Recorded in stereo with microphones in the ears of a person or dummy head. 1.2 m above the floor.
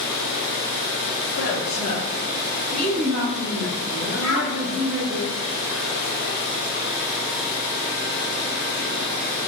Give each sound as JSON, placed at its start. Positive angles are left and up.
{"t": 1.4, "sound": "a woman speaking", "side_deg": 45, "distance_m": 0.8}
{"t": 4.2, "sound": "a child speaking", "side_deg": -15, "distance_m": 1.7}